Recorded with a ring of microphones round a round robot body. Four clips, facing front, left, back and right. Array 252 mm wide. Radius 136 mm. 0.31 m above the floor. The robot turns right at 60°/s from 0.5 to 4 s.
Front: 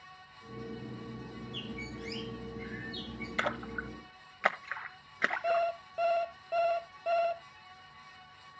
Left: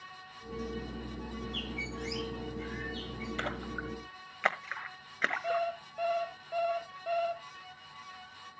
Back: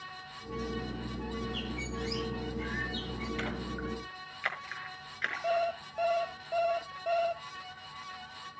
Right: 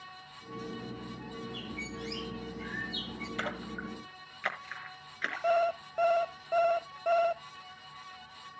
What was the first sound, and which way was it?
A bird, 110° left.